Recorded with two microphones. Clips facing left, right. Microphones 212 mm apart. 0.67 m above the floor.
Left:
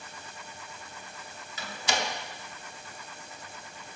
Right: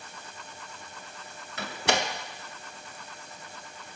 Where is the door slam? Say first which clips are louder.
Right 4 dB; 60° right (ahead or behind), 0.8 m.